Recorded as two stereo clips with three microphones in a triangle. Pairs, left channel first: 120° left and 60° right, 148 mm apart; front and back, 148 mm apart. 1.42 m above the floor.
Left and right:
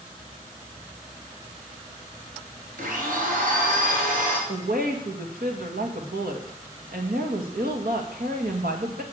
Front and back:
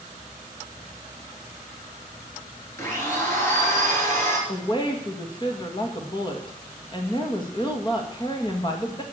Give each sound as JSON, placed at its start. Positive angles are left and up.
{"t": 2.8, "sound": "a blender", "azimuth_deg": -70, "distance_m": 3.5}
{"t": 4.5, "sound": "a woman speaking", "azimuth_deg": -60, "distance_m": 2.0}